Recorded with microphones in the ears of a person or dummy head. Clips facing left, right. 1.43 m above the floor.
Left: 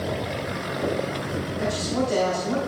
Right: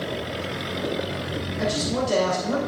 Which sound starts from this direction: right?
A man speaking, at 1.6 s.